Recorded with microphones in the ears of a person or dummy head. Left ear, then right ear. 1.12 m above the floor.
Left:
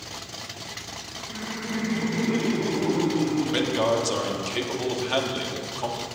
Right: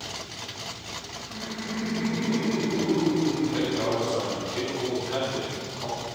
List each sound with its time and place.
1.3 s laughter: 75° left (ahead or behind), 1.6 m; by 4.5 s 40° left (ahead or behind), 2.5 m
3.5 s a man speaking: 60° left (ahead or behind), 1.9 m